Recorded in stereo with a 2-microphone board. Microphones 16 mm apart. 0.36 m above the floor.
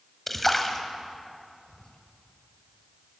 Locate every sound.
0.3 s a splash: 10° left (ahead or behind), 1.5 m
1.7 s whispering: 35° left (ahead or behind), 1.4 m